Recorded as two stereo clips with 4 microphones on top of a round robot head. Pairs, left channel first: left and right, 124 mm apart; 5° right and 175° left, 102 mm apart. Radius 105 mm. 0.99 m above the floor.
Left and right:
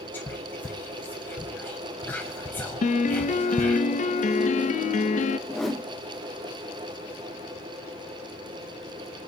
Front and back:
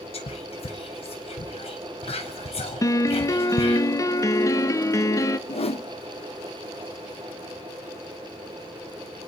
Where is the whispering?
15° left, 0.7 m.